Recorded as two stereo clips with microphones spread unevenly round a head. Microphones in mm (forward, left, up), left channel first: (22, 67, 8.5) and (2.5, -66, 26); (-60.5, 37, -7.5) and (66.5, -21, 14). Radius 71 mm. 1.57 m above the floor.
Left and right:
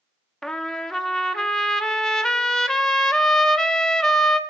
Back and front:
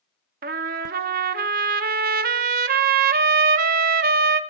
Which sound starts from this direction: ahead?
A trumpet, at 0.4 s.